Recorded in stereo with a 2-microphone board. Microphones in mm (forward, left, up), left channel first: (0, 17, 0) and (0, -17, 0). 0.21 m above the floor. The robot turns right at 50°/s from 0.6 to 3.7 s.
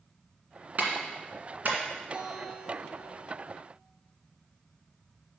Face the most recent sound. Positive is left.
turn(degrees=45)